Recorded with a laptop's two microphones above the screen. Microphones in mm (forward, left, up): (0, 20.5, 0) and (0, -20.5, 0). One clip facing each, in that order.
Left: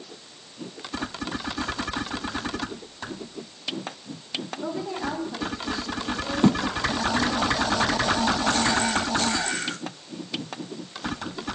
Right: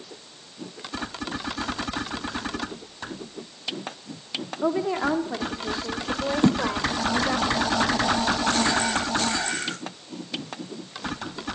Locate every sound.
4.6 s a woman speaking: 55° right (ahead or behind), 1.6 m; by 7.4 s 70° right (ahead or behind), 4 m
6.4 s a thud: centre (ahead or behind), 1.1 m